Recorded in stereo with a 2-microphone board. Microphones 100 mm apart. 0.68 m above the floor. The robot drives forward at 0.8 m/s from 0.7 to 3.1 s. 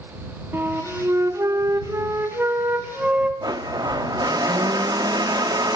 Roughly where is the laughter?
No laughter in this recording.